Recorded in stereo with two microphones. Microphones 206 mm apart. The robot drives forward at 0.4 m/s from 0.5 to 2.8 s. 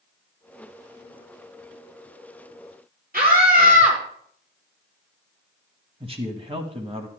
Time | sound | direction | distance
3.1 | a scream | 45° right (ahead or behind) | 5 m
6.0 | a man speaking | 30° right (ahead or behind) | 1.3 m